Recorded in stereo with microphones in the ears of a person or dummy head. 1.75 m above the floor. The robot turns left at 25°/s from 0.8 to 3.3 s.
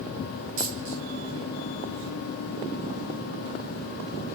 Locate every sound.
0.6 s a dropped coin: 35° right (ahead or behind), 1.5 m; by 1.0 s 30° right (ahead or behind), 1.5 m